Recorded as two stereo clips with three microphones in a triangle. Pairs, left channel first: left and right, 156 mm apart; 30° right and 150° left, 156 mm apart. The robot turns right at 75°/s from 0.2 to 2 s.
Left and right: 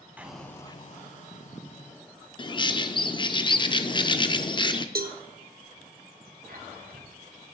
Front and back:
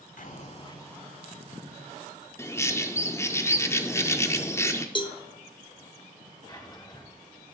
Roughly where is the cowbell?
Right.